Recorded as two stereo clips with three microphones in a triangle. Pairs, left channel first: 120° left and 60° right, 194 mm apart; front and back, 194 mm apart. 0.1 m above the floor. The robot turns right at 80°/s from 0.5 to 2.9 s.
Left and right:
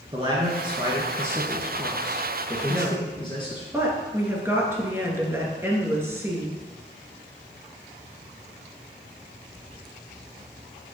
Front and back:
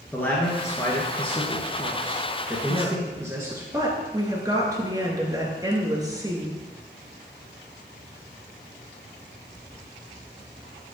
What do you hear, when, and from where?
0.1 s a man speaking: 65° right, 1.4 m; by 3.7 s 125° left, 1.4 m
2.7 s a woman speaking: 145° right, 1.7 m; by 6.6 s 125° right, 1.7 m